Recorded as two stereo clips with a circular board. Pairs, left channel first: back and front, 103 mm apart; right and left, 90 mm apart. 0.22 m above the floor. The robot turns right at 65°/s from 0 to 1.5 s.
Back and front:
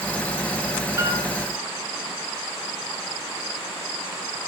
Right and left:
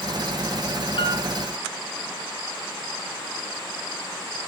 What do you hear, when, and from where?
1.0 s a piano: 60° right, 3.5 m; by 1.3 s 45° right, 3.5 m